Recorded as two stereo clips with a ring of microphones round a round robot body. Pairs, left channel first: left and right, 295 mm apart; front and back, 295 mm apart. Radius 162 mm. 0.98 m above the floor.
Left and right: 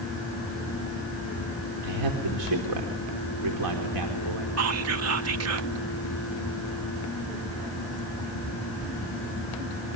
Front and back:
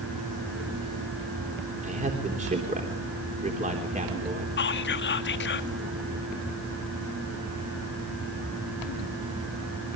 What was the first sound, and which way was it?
A man speaking, 115° right.